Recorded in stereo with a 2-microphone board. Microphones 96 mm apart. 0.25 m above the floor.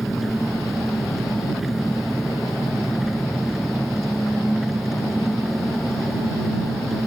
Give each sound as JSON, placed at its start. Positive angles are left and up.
{"t": 0.0, "sound": "an engine running", "side_deg": 0}